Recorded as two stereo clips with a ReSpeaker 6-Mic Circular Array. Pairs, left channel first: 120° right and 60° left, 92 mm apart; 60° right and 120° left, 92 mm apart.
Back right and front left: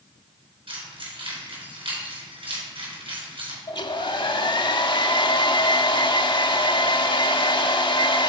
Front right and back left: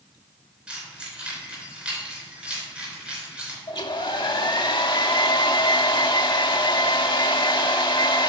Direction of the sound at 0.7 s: 40° left.